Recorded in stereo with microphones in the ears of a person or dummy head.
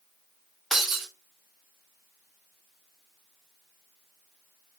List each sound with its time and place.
0.7 s breaking glass: 5° right (ahead or behind), 1.4 m